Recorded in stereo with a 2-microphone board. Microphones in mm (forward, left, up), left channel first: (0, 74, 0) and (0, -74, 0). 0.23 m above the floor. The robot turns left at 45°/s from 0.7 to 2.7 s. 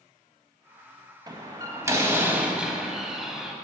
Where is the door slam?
105° right, 0.9 m; by 3.5 s 170° right, 0.9 m.